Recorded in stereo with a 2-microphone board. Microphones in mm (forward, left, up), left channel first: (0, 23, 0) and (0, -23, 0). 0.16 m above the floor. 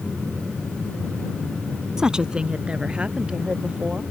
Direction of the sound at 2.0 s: 15° right (ahead or behind).